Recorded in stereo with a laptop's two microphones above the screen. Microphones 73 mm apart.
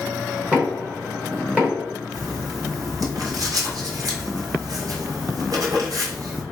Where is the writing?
55° right (ahead or behind), 1.3 m.